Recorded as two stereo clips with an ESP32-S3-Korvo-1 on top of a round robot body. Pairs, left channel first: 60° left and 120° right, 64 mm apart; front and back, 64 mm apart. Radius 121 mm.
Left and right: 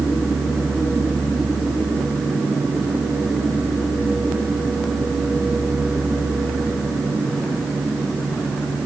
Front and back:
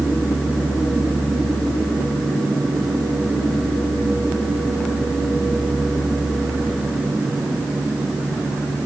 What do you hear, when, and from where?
Only background noise.